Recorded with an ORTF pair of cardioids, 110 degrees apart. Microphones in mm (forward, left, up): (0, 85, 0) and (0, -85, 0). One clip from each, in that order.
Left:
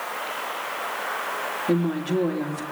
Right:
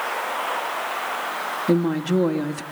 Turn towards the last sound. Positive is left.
turn(degrees=-30)